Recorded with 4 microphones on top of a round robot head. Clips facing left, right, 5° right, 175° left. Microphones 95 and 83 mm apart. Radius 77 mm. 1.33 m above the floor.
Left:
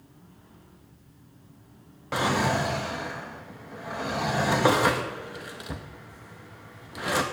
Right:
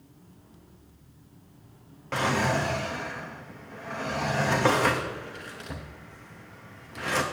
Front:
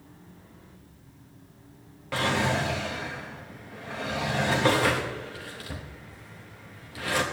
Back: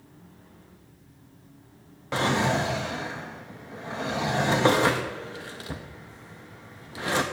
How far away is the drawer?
About 0.6 m.